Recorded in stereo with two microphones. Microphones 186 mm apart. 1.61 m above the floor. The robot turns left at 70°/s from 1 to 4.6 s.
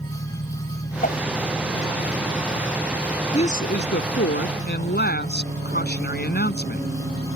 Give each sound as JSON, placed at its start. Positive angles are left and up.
{"t": 0.0, "sound": "an engine running", "azimuth_deg": 140}
{"t": 1.0, "sound": "a whoosh", "side_deg": 50}
{"t": 3.3, "sound": "a woman speaking", "azimuth_deg": 150}